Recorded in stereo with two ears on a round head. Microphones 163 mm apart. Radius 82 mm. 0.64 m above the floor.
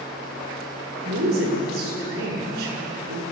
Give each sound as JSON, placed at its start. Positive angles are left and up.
{"t": 1.1, "sound": "a woman speaking", "side_deg": -55, "distance_m": 7.0}